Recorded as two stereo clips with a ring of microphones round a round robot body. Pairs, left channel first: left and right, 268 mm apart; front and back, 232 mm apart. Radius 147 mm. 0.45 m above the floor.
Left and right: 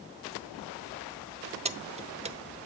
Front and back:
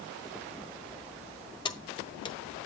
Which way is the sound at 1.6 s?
50° right.